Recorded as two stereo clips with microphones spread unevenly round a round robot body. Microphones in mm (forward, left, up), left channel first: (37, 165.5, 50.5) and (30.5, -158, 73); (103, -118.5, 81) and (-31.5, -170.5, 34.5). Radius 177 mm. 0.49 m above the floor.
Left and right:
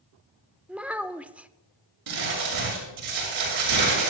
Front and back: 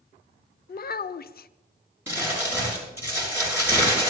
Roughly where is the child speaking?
Ahead.